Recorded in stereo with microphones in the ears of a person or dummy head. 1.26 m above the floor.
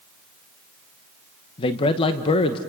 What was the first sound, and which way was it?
A man speaking, 25° left (ahead or behind).